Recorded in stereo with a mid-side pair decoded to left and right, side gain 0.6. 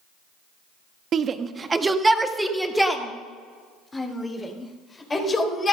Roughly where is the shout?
Ahead right.